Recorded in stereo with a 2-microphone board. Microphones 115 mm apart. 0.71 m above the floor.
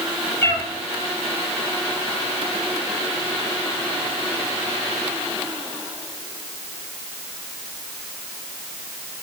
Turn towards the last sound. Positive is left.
turn(degrees=20)  # may be behind; listen again after turning